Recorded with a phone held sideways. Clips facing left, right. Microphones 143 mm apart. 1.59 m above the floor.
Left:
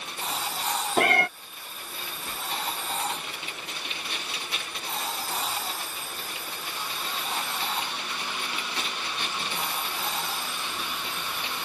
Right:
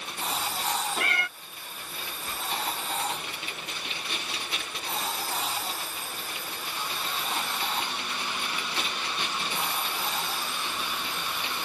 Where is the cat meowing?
60° left (ahead or behind).